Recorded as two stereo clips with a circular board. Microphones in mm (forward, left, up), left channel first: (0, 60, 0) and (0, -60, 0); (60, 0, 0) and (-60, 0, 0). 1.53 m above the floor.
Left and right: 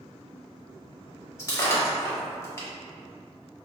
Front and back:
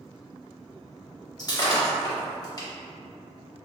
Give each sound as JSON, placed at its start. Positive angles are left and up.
{"t": 1.4, "sound": "breaking glass", "azimuth_deg": 35, "distance_m": 0.8}